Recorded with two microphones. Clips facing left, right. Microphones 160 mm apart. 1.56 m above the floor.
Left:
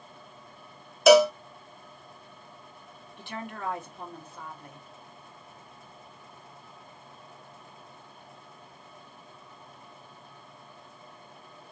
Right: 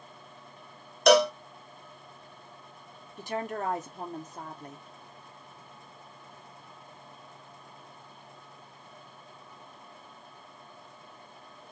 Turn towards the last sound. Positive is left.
turn(degrees=-40)  # may be behind; listen again after turning